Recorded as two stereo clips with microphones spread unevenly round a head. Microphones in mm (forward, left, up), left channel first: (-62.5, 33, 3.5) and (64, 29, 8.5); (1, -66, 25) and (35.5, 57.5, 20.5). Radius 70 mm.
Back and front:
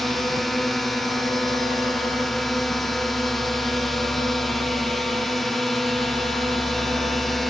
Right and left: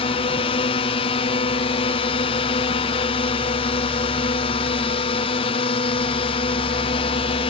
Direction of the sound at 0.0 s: 95° right.